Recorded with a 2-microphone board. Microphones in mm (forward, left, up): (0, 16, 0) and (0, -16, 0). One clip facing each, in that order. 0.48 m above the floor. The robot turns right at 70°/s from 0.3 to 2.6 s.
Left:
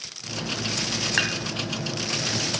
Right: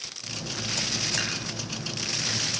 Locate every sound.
1.2 s dishes clattering: 35° left (ahead or behind), 2.5 m; by 1.4 s 45° left (ahead or behind), 2.5 m